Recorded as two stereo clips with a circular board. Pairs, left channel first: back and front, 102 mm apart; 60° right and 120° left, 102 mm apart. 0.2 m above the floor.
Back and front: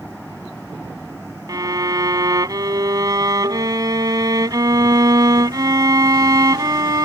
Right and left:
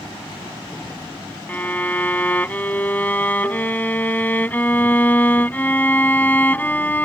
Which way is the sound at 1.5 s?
Straight ahead.